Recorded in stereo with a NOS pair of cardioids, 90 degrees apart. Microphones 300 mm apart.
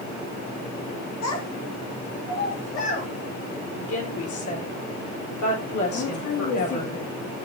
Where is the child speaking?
55° left, 2.5 m; by 3.1 s 50° left, 4 m.